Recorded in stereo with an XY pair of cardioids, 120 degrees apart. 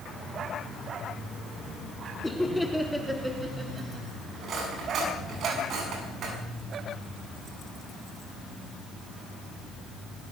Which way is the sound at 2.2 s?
10° left.